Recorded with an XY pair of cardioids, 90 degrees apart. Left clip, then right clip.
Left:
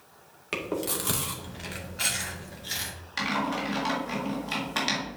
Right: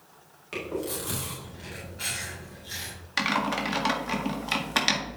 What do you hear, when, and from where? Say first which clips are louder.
0.5 s chewing: left 2 dB; 65° left, 1.9 m
3.2 s typing on a keyboard: right 2 dB; 45° right, 1.7 m